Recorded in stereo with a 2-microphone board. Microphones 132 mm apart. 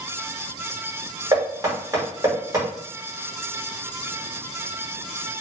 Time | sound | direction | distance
1.3 | knocking | 25° right (ahead or behind) | 1.8 m